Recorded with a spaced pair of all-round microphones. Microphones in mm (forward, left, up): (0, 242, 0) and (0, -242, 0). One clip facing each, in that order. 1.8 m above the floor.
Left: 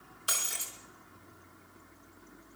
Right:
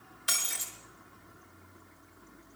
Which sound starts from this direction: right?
Breaking glass, at 0.3 s.